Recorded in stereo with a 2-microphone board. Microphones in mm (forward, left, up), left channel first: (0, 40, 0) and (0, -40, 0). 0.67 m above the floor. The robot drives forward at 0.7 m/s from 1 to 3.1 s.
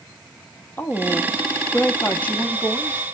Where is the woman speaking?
25° left (ahead or behind), 0.7 m; by 3.0 s 10° left (ahead or behind), 1.3 m.